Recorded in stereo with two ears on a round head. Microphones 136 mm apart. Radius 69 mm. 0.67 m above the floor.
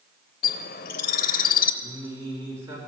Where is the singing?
15° right (ahead or behind), 3 m.